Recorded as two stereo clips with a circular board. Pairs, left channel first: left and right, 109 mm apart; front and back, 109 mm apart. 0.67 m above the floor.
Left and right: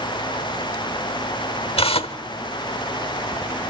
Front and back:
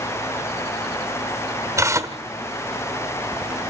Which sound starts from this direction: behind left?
Tearing paper, at 1.8 s.